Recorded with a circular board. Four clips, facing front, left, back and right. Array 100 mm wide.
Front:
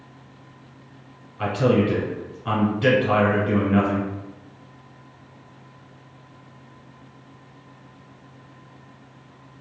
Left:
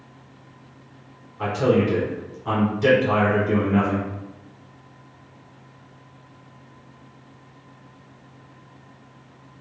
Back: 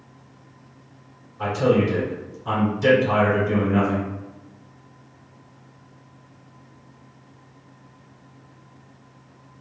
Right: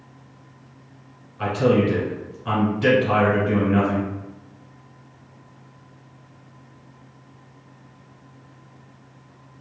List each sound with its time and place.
1.4 s a man speaking: 20° right, 1.4 m